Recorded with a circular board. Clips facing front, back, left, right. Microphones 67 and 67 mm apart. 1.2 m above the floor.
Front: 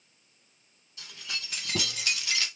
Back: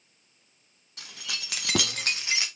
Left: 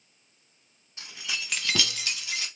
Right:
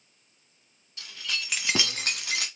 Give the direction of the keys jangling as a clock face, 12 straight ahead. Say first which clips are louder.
Back 1 dB, right 1 dB; 7 o'clock.